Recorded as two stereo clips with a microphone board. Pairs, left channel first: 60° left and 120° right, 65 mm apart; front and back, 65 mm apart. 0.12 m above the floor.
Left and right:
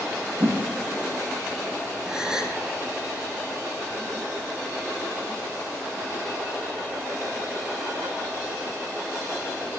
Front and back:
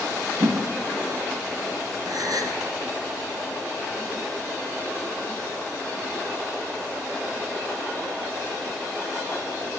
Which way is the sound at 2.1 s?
160° left.